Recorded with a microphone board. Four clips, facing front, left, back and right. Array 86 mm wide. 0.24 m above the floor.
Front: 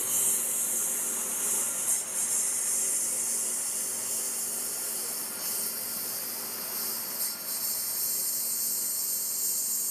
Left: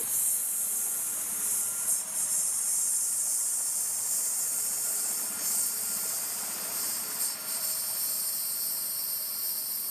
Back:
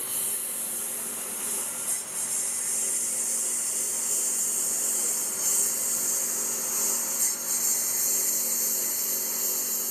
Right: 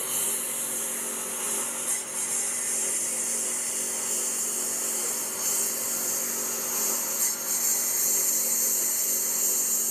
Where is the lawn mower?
80° right; by 9.9 s 130° right.